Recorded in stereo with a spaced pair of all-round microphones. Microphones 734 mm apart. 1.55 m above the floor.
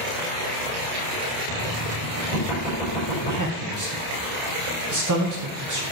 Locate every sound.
1.5 s knocking: 70° left (ahead or behind), 5 m
3.2 s a man speaking: 25° right (ahead or behind), 1.2 m